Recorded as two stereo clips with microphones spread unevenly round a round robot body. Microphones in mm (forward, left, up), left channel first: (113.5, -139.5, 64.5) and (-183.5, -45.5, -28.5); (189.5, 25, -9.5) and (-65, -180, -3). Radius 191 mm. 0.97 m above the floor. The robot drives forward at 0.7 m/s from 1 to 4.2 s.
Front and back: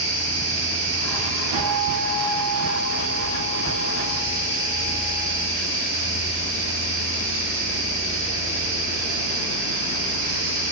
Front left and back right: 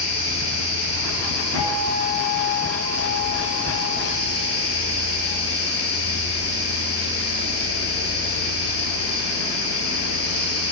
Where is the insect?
175° right, 3.5 m.